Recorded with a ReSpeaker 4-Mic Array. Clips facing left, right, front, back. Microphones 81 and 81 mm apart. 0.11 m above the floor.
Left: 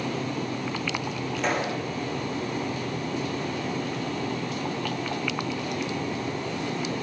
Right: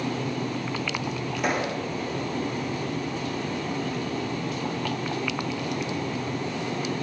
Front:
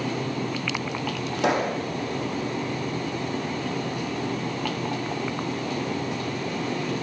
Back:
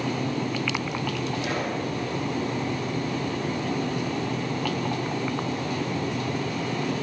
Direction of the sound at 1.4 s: 10° right.